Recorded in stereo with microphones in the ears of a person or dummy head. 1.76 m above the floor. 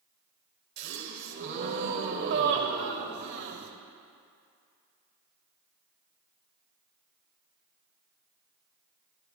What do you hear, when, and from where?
0.8 s a gasp: 60° right (ahead or behind), 1.5 m